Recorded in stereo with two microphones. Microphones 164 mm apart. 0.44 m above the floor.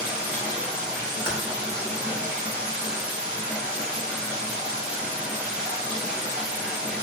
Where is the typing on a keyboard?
15° right (ahead or behind), 0.8 m.